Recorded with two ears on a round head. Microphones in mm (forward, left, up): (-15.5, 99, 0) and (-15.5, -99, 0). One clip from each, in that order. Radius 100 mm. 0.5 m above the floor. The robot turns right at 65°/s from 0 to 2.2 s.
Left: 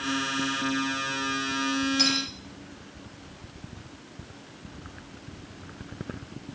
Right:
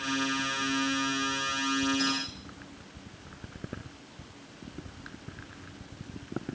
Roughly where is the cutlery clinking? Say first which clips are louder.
Left 6 dB; left.